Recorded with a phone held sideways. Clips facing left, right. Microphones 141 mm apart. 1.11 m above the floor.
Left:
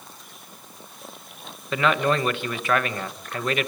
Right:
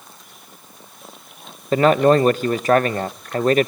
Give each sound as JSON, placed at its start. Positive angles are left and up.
{"t": 1.7, "sound": "a man speaking", "side_deg": -40, "distance_m": 0.7}